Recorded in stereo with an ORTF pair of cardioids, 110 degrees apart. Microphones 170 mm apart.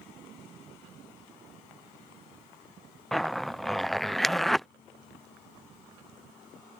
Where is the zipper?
Straight ahead.